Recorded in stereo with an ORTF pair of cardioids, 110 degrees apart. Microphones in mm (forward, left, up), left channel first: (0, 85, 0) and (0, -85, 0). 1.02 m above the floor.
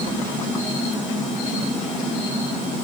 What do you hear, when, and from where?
Only background noise.